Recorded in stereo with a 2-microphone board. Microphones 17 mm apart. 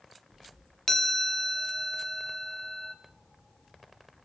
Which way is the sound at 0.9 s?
30° left (ahead or behind).